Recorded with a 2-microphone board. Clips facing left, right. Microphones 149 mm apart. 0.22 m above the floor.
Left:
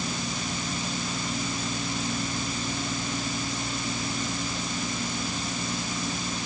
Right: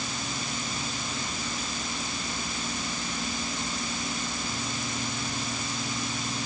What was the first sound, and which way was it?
Only background noise.